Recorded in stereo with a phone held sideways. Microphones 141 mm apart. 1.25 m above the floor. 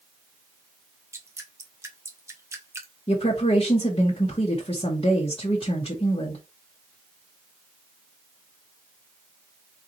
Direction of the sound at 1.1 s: 20° right (ahead or behind).